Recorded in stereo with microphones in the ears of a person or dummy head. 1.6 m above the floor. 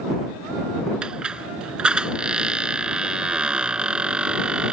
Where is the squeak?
10° right (ahead or behind).